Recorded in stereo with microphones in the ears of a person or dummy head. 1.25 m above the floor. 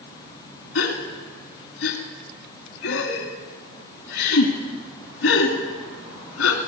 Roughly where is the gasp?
Left.